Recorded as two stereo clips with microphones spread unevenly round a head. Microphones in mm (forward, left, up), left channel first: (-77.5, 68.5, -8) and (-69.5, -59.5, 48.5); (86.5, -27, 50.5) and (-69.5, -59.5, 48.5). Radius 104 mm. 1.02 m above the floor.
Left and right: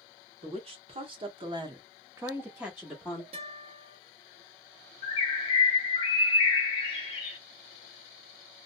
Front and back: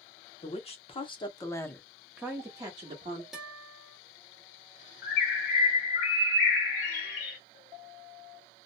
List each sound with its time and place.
0.4 s a woman speaking: 25° right, 1.2 m; by 3.2 s 155° left, 1.1 m
3.3 s a guitar: 80° right, 1.2 m
5.0 s a bird: 10° left, 0.7 m